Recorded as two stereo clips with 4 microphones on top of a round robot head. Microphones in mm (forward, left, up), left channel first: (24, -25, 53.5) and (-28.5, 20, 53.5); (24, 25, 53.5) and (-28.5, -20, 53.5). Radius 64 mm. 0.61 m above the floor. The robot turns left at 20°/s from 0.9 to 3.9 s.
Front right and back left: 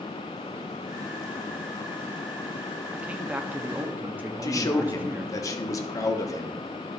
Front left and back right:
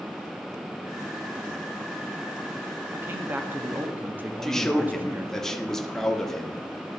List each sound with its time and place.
2.9 s a man speaking: 165° right, 1.2 m; by 5.4 s straight behind, 1.2 m
4.4 s a man speaking: 40° right, 1.4 m